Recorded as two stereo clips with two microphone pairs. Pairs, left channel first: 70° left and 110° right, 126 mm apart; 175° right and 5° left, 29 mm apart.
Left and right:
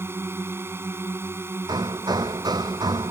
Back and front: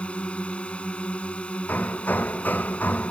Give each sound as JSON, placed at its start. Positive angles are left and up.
{"t": 0.0, "sound": "a drone", "azimuth_deg": -170}
{"t": 1.7, "sound": "hammering", "azimuth_deg": -165}